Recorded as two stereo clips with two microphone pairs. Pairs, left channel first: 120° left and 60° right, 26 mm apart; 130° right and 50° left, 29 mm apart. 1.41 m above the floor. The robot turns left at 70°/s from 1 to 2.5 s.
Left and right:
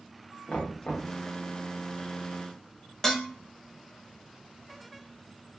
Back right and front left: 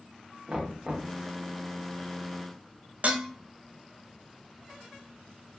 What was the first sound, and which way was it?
Knocking, 105° left.